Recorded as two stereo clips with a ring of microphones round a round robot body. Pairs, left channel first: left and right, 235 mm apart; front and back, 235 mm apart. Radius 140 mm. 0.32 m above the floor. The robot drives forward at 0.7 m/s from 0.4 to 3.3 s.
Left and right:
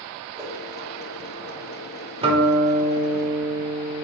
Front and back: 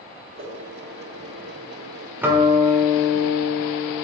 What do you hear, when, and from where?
0.4 s a whoosh: 165° right, 1.7 m
2.2 s a guitar: 105° right, 1.0 m; by 4.0 s 155° right, 1.3 m